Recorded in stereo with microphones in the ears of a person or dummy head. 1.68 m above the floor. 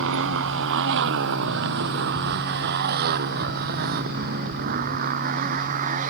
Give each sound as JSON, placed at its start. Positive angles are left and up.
{"t": 0.0, "sound": "a motorcycle", "side_deg": -70}